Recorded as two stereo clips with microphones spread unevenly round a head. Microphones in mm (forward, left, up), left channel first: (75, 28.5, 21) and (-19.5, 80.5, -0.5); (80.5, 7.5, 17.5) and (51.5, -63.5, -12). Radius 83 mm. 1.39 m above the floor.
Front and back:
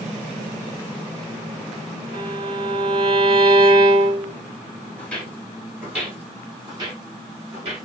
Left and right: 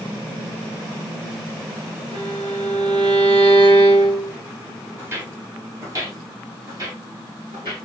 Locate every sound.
2.1 s a violin: 150° right, 0.7 m
5.0 s footsteps: 50° right, 1.4 m; by 7.8 s 170° right, 1.9 m